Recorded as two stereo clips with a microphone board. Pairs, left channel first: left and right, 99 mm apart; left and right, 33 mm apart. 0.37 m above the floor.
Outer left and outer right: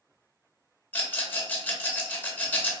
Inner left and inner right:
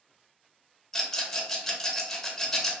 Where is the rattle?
15° left (ahead or behind), 0.9 m.